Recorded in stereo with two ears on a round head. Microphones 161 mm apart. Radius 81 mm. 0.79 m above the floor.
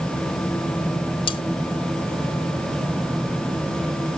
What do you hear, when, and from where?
1.3 s cutlery clinking: 30° left (ahead or behind)